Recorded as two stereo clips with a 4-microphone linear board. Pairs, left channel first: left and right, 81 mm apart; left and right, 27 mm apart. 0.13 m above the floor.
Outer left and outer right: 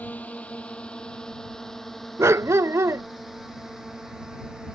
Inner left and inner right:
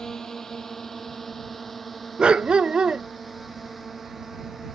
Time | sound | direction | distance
0.0 | a drone | 20° left (ahead or behind) | ?
2.2 | a dog barking | 35° right (ahead or behind) | ?